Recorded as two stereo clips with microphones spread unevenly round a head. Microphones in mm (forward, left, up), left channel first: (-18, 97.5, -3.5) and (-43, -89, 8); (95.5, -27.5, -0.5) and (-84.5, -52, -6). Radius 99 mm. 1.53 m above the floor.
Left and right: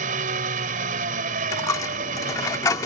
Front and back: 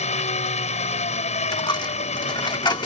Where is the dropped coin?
25° left.